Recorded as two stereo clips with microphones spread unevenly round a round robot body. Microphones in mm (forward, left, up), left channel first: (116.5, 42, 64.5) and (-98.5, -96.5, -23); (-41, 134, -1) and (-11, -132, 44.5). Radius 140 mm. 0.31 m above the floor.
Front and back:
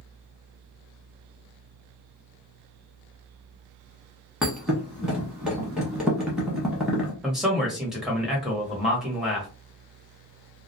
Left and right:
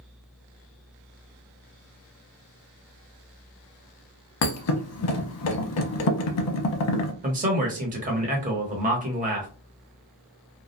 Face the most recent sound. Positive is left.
turn(degrees=-120)